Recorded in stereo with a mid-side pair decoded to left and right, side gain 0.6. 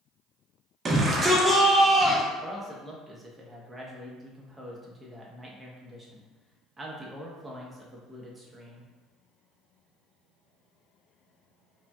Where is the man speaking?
15° right, 1.1 m.